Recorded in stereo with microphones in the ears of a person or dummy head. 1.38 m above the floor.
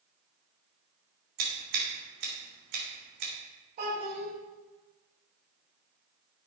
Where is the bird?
No bird in this recording.